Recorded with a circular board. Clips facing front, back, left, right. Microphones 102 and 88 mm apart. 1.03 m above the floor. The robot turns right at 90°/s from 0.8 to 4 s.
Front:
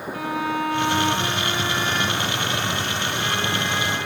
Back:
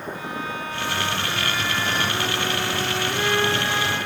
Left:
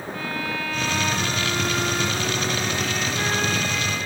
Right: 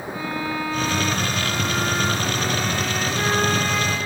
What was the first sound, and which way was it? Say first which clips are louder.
A violin: front 6 dB, right 3 dB; 15° right.